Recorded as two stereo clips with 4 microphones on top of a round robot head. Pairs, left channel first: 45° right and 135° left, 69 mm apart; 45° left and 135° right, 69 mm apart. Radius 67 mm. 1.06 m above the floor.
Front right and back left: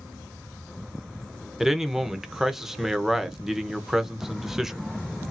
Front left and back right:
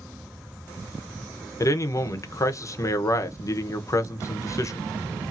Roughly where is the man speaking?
Ahead left.